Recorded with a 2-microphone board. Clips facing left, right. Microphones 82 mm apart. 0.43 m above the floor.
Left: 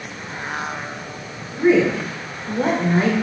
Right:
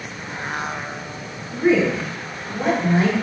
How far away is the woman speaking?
About 1.0 m.